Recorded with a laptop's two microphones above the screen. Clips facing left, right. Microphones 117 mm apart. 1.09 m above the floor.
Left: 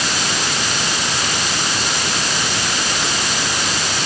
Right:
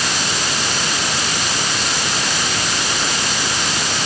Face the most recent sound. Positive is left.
No sound to turn to.